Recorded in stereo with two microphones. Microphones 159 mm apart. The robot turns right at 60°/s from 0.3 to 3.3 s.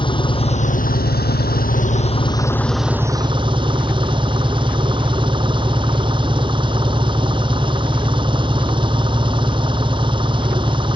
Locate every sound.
0.0 s an engine running: 30° left; by 11.0 s 150° right